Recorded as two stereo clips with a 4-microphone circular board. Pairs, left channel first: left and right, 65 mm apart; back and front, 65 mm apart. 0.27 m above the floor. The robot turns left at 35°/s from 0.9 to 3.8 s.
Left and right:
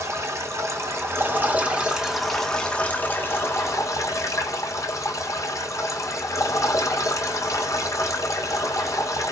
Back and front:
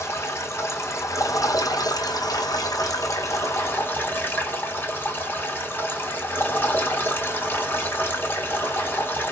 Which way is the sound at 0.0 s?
135° right.